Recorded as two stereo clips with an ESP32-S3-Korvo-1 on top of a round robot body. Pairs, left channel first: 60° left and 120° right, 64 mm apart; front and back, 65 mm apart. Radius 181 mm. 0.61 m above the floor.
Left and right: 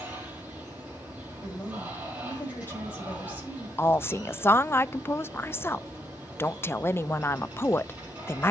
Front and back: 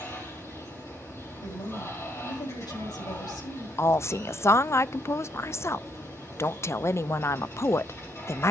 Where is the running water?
50° right, 4.5 m.